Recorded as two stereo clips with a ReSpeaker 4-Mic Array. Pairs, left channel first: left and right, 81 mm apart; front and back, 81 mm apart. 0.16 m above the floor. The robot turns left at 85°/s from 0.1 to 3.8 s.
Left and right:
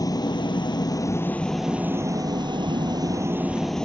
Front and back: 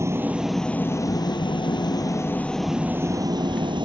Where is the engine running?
125° left; by 3.9 s 170° left.